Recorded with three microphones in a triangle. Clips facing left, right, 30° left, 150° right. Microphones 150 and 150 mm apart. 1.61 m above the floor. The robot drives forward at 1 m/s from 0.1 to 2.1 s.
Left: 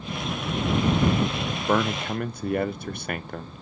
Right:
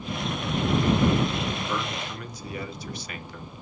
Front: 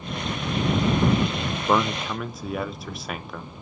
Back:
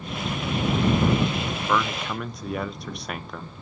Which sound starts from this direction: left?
A man speaking, at 1.7 s.